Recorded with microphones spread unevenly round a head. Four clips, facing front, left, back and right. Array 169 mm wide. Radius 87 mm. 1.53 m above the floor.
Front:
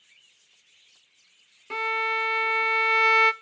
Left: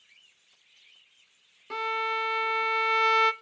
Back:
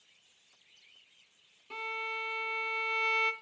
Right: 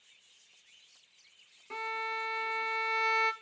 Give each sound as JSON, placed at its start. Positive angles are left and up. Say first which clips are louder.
{"t": 1.7, "sound": "a violin", "louder": "left 7 dB, front 11 dB", "azimuth_deg": 35, "distance_m": 0.5}